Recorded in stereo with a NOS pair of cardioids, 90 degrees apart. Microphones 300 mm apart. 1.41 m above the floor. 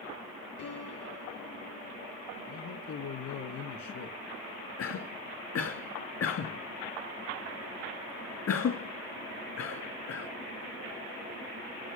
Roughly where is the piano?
Left.